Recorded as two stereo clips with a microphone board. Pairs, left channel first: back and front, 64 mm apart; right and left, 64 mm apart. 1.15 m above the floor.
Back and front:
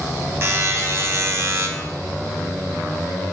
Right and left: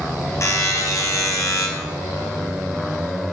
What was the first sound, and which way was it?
A buzzer, 50° right.